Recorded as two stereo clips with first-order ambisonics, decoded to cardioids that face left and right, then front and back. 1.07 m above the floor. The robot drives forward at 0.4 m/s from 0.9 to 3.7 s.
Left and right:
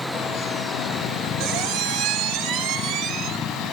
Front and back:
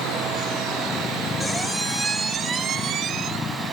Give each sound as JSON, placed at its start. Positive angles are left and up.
{"t": 1.4, "sound": "a squeak", "azimuth_deg": -80, "distance_m": 0.8}